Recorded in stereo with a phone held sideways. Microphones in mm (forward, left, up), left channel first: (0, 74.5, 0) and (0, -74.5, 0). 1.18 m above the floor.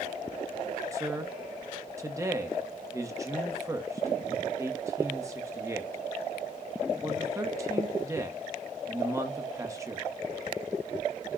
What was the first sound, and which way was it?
A man speaking, 20° right (ahead or behind).